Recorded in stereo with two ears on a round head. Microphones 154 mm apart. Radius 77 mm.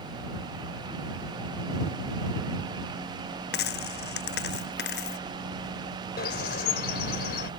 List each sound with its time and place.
3.5 s a dropped coin: 65° left (ahead or behind)
6.2 s a bird: 60° left (ahead or behind)